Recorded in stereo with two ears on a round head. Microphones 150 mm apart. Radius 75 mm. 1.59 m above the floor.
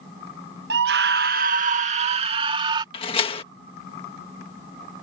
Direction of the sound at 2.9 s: 35° left (ahead or behind).